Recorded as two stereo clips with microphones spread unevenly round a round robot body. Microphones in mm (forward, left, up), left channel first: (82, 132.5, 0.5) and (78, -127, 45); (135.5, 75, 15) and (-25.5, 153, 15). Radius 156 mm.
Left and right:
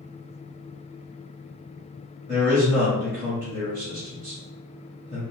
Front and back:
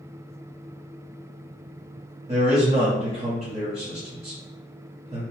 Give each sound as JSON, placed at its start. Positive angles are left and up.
{"t": 2.3, "sound": "a man speaking", "azimuth_deg": 180, "distance_m": 1.6}